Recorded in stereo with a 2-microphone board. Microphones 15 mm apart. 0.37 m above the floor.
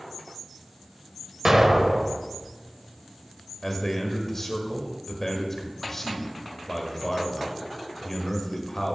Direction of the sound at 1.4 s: 40° right (ahead or behind).